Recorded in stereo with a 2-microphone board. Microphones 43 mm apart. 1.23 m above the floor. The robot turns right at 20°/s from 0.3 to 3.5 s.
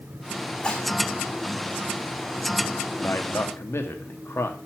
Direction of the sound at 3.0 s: 90° left.